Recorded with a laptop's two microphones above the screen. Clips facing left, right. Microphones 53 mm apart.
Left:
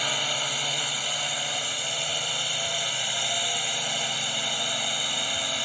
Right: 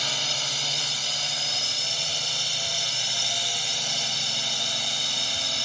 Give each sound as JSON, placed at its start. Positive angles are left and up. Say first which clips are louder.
{"t": 0.0, "sound": "a drone", "louder": "left 2 dB", "side_deg": 15}